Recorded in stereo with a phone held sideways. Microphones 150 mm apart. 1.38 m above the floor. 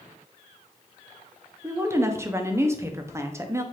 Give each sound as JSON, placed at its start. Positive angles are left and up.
{"t": 1.6, "sound": "a woman speaking", "side_deg": -20, "distance_m": 0.6}